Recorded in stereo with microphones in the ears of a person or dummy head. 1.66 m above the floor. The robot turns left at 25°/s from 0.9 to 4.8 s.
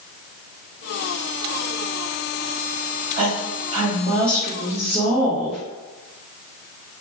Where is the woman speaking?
140° right, 0.8 m; by 5.6 s straight behind, 0.8 m.